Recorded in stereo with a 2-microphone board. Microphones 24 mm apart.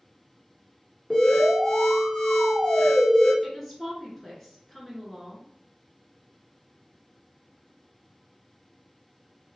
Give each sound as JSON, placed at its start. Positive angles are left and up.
{"t": 1.1, "sound": "an alarm", "side_deg": 15, "distance_m": 1.7}
{"t": 3.4, "sound": "a woman speaking", "side_deg": 5, "distance_m": 1.1}